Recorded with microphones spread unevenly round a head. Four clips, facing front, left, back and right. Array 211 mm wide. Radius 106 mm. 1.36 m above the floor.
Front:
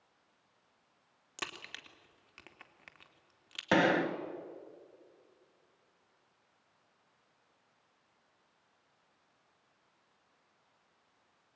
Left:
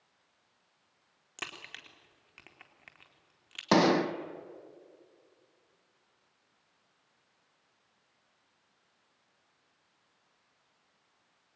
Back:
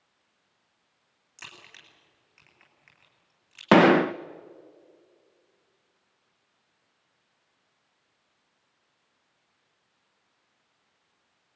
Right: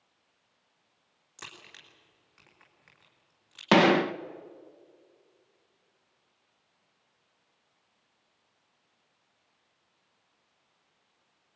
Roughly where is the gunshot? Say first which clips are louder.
Right 3 dB, back 11 dB; behind.